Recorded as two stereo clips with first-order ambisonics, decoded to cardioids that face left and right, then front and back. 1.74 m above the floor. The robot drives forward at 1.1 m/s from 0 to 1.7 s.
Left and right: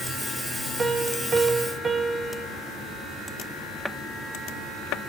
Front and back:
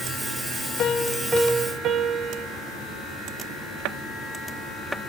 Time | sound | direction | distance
0.8 | a piano | 25° right | 0.8 m